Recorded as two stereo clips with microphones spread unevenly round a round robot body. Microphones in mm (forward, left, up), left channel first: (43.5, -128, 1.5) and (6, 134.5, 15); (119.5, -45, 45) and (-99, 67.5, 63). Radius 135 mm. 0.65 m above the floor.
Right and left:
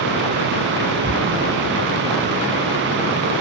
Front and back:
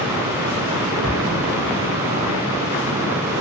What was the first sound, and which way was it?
An explosion, 145° right.